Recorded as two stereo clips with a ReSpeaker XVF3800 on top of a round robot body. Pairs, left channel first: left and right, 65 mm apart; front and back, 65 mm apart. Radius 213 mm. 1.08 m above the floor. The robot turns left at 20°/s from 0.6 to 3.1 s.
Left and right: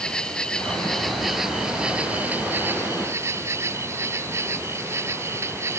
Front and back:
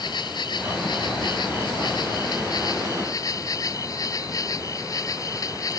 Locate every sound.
0.0 s an insect: 15° left; by 5.8 s 35° right